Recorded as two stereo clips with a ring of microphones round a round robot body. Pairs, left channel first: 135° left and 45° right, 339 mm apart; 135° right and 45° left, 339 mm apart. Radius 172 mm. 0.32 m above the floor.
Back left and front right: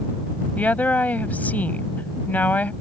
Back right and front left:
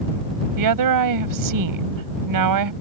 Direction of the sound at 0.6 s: 50° left.